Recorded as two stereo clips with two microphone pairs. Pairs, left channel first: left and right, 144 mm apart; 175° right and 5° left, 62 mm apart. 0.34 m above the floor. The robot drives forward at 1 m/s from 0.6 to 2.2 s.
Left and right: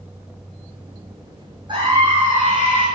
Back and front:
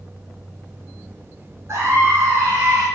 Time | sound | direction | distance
1.7 | a scream | 35° right | 4 m